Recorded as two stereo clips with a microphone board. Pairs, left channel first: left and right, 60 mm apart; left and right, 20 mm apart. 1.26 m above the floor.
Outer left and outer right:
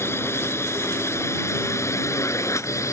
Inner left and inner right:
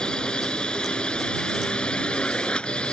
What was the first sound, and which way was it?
A drone, 50° left (ahead or behind).